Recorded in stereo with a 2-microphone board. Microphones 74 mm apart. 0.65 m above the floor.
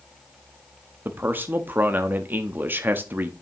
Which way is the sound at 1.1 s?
30° right (ahead or behind).